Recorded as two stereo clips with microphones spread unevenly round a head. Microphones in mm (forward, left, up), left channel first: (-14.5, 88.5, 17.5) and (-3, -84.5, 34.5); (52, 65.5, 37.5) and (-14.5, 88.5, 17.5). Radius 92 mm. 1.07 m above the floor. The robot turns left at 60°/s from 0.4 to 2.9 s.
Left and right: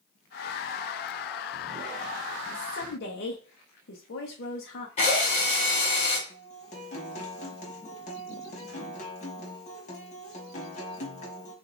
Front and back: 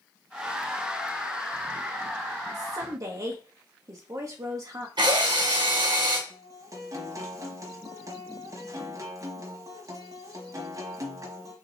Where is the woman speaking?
150° left, 1.0 m; by 4.9 s 130° left, 1.0 m.